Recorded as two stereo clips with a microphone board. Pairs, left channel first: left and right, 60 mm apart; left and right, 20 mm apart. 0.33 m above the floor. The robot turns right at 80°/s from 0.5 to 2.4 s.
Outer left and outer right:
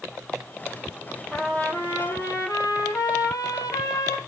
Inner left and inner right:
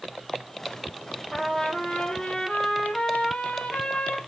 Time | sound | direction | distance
1.3 | a trumpet | 5° left | 4.5 m